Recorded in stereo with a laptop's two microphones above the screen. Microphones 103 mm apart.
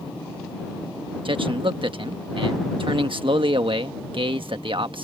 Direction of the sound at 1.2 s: 55° right (ahead or behind).